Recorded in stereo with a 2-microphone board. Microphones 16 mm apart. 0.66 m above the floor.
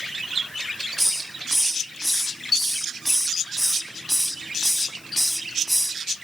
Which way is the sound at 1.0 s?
Centre (ahead or behind).